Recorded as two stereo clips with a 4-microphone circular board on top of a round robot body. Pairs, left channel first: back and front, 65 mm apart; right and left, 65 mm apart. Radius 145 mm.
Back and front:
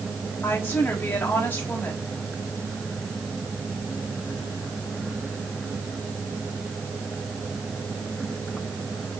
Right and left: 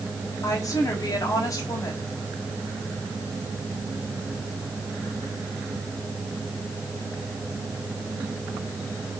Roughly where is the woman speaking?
Behind right.